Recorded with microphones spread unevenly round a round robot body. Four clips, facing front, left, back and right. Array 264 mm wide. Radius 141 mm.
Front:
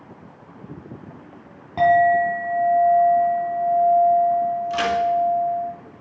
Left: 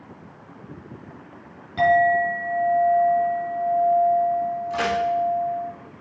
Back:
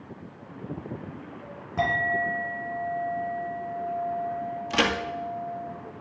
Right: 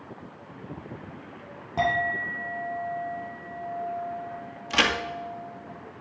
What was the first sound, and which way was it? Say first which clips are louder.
A clink: left 9 dB, front 11 dB; 25° right.